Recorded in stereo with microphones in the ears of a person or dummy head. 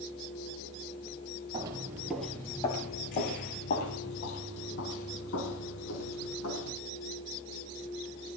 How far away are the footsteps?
About 1.6 m.